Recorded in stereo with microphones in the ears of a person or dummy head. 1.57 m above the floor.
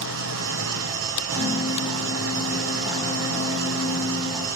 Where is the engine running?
80° right, 1.2 m.